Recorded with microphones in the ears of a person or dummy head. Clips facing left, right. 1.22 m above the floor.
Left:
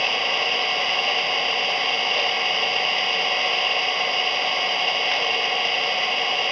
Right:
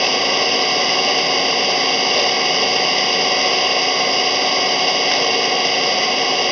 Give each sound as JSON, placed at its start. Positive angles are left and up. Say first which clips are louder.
{"t": 0.0, "sound": "an engine running", "louder": "right 8 dB", "side_deg": -55}